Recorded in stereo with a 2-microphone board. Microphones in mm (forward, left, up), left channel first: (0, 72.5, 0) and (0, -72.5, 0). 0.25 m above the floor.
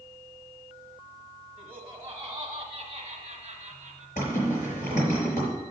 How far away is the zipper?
About 4.5 m.